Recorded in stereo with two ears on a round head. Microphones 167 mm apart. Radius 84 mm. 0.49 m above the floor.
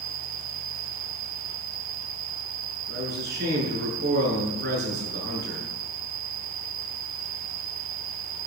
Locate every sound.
0.0 s an insect: 70° right (ahead or behind), 0.8 m
2.9 s a man speaking: 55° right (ahead or behind), 7.5 m